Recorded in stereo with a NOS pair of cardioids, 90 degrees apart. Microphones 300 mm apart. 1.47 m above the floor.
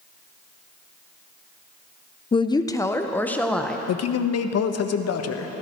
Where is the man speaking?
65° left, 1.3 m.